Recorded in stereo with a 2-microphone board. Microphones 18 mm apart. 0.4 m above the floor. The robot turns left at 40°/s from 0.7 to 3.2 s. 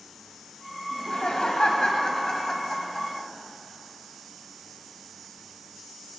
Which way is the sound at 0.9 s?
90° left.